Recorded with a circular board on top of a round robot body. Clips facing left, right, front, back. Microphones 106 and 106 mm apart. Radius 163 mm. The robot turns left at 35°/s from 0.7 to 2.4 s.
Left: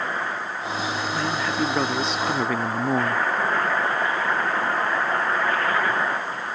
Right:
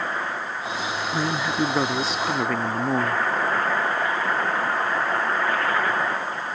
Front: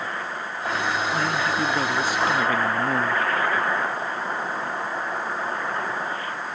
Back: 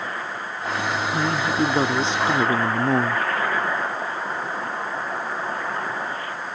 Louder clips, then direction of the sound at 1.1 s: Right 2 dB, back 1 dB; 140° right.